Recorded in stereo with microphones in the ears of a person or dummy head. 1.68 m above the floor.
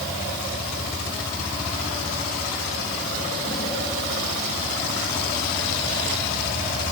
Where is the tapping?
I don't hear tapping.